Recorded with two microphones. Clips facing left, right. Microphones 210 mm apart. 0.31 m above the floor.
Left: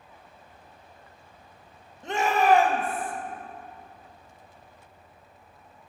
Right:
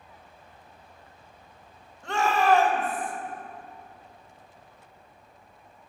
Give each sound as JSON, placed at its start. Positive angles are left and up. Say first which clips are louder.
{"t": 2.0, "sound": "a shout", "louder": "left 1 dB", "side_deg": 20, "distance_m": 1.2}